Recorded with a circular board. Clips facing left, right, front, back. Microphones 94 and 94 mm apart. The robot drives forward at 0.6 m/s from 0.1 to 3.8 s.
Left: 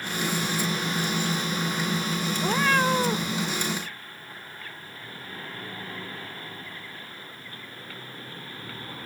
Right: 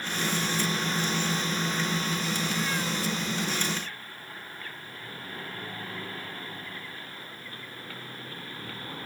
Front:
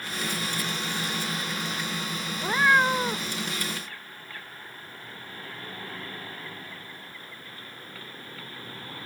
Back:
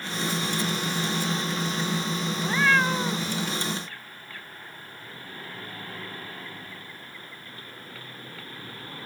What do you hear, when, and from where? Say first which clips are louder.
2.4 s a cat meowing: left 7 dB, front 2 dB; 70° left; by 3.3 s 75° left